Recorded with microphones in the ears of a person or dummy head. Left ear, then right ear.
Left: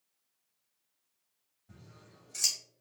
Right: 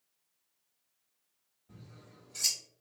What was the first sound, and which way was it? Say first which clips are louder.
Scissors: right 1 dB; 40° left (ahead or behind).